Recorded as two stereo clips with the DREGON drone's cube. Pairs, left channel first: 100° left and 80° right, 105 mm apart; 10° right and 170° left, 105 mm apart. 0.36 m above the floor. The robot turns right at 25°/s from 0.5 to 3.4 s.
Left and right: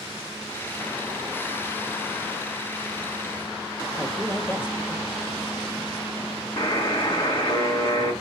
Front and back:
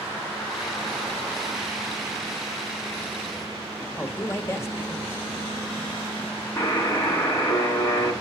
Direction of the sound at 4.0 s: 40° left.